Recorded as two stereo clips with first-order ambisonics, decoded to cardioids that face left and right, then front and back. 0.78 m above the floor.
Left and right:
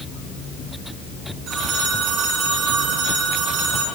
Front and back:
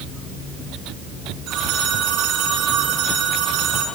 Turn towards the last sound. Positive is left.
turn(degrees=-145)